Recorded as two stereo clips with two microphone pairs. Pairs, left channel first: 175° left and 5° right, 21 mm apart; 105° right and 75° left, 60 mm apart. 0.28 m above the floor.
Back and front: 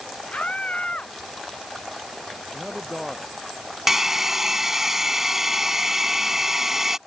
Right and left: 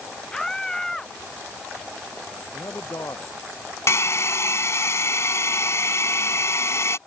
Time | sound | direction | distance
0.3 | a scream | 175° left | ?
2.5 | a man speaking | 85° right | ?
3.9 | a hair dryer | 75° right | ?